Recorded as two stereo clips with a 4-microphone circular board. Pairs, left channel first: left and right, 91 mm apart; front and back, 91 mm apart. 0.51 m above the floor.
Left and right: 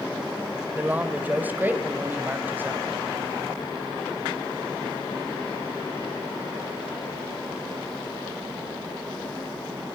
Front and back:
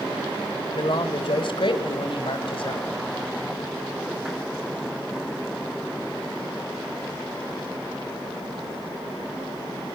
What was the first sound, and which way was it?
A man speaking, 20° right.